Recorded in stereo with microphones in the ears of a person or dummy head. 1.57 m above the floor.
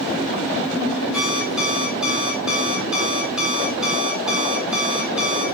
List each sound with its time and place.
1.1 s an alarm clock: 10° right (ahead or behind), 5.5 m